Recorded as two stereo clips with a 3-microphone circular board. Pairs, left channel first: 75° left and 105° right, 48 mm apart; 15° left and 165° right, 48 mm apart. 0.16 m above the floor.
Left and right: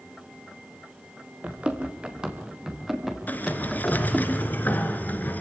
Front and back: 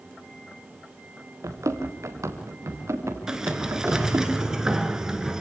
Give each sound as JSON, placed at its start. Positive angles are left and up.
{"t": 1.4, "sound": "running footsteps", "azimuth_deg": -165, "distance_m": 3.5}
{"t": 3.3, "sound": "a sliding door", "azimuth_deg": 120, "distance_m": 2.5}